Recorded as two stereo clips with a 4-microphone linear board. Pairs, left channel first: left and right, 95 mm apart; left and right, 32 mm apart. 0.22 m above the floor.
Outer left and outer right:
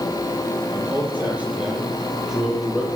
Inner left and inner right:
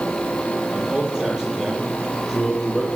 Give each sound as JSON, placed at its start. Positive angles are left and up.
{"t": 0.7, "sound": "a man speaking", "side_deg": -20, "distance_m": 8.0}